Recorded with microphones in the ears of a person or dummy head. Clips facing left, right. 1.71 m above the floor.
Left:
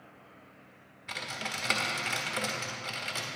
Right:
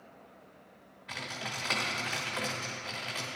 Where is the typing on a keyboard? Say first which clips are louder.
Left 1 dB; 30° left (ahead or behind), 1.0 m.